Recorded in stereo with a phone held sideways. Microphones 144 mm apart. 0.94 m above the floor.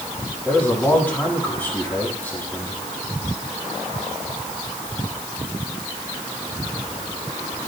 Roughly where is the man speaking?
Centre.